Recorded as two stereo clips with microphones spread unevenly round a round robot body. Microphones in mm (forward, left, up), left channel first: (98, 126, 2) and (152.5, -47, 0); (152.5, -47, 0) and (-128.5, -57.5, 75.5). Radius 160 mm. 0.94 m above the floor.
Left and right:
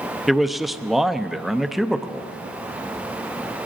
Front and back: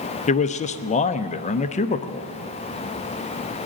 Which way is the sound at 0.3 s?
15° left.